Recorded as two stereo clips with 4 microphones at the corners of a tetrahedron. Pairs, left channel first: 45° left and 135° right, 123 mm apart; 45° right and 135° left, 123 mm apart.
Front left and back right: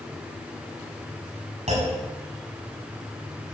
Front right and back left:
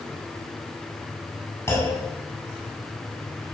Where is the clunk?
115° right, 6.5 m.